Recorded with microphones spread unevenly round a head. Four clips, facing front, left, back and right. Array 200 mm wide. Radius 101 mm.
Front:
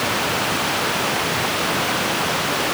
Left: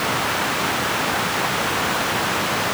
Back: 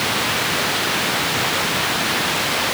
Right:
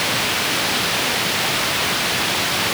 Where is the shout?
I don't hear a shout.